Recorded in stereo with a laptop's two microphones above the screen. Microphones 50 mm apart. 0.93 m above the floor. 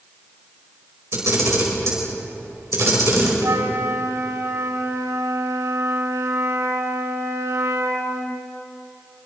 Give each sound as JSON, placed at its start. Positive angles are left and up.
{"t": 1.1, "sound": "a camera shutter", "side_deg": -65, "distance_m": 5.0}
{"t": 3.4, "sound": "a flute", "side_deg": -75, "distance_m": 2.5}